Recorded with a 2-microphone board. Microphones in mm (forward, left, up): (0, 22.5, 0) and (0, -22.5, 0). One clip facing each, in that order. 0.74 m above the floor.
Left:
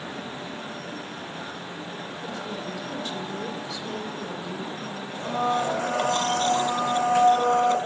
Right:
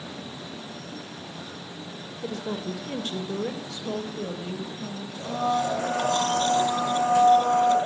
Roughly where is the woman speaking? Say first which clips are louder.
Right 4 dB; right.